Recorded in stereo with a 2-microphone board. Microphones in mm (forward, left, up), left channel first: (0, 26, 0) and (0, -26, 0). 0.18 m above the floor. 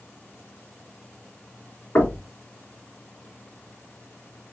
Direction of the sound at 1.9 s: 45° left (ahead or behind).